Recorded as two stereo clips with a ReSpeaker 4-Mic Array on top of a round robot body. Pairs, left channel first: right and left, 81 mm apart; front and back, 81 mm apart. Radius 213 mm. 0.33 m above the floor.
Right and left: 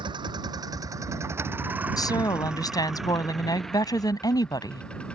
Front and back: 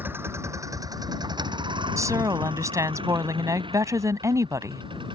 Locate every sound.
0.0 s a vehicle: 115° left; by 5.2 s 165° right
2.0 s a woman speaking: 130° right